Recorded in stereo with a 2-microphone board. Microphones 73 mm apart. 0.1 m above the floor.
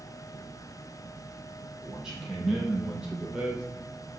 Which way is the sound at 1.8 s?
5° right (ahead or behind).